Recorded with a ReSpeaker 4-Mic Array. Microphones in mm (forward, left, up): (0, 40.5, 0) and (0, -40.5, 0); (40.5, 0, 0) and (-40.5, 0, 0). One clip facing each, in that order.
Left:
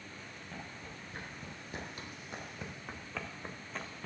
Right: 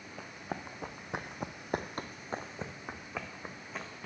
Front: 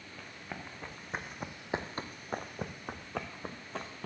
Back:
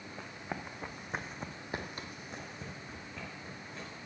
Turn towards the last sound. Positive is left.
turn(degrees=0)